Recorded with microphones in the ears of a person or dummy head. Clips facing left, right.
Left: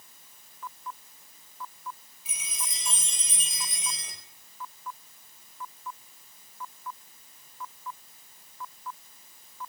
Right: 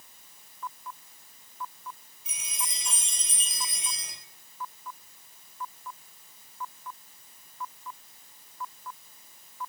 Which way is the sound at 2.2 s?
Centre (ahead or behind).